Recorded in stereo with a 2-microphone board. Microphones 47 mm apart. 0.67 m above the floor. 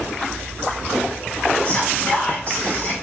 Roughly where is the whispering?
Left.